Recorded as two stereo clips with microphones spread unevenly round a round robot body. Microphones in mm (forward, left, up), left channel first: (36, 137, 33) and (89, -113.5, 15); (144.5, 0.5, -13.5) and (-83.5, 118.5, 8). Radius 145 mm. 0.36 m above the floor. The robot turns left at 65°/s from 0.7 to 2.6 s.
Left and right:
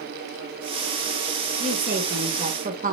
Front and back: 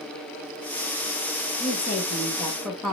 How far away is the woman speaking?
About 1.6 m.